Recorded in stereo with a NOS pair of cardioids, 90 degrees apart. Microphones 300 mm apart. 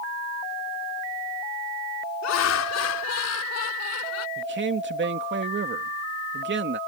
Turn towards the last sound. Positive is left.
turn(degrees=-40)